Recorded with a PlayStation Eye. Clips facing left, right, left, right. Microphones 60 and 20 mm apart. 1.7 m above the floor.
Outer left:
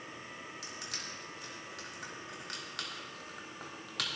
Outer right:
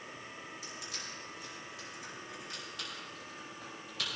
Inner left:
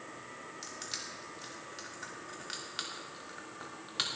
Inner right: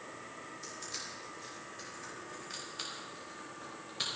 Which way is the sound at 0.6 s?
75° left (ahead or behind).